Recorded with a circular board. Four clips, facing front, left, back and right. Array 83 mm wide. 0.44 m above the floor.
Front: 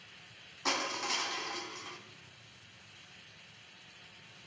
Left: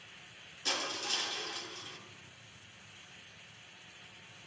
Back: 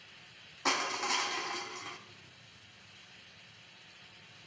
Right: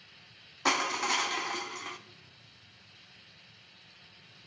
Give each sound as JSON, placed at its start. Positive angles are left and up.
{"t": 0.7, "sound": "crushing", "azimuth_deg": -100, "distance_m": 1.0}